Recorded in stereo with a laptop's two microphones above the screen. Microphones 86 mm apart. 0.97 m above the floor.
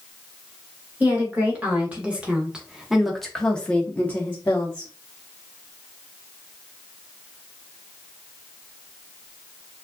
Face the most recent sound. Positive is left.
turn(degrees=25)  # may be behind; listen again after turning